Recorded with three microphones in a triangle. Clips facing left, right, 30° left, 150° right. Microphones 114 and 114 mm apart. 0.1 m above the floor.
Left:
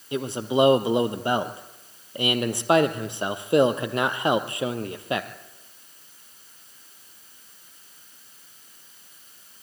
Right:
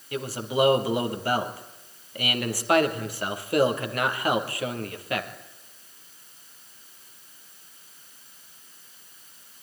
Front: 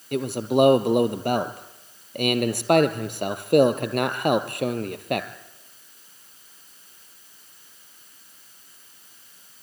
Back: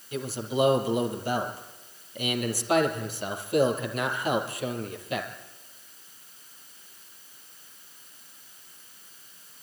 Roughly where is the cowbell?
No cowbell in this recording.